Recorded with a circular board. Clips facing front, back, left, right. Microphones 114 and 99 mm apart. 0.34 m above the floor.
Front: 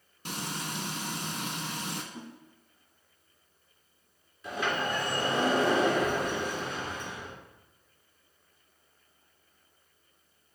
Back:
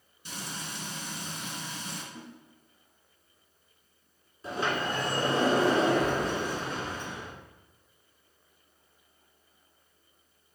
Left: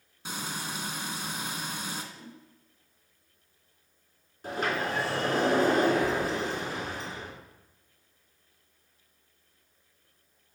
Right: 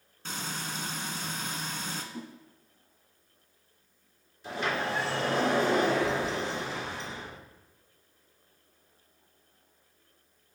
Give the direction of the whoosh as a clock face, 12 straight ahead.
2 o'clock.